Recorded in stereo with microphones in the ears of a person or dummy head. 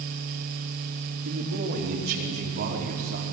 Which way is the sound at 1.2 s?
60° right (ahead or behind).